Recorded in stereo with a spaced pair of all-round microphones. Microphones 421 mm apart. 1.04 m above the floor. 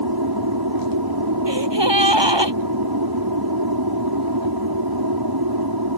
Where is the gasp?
80° right.